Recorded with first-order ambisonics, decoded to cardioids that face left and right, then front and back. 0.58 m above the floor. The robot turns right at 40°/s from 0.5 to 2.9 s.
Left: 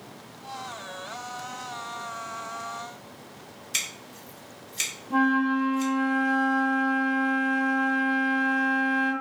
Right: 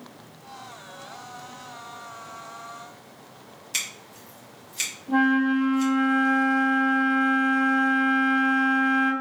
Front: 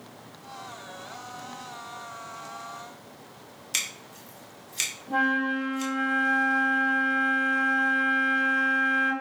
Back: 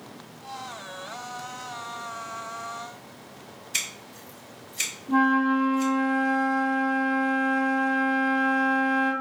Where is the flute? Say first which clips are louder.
Right 2 dB, back 3 dB; 55° right, 1.8 m.